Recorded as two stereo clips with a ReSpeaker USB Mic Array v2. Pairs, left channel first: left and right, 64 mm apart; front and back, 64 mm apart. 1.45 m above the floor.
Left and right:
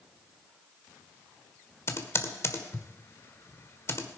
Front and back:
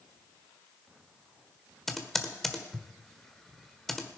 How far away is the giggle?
No giggle in this recording.